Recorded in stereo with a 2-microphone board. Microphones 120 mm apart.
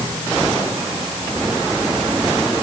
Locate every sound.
Only background noise.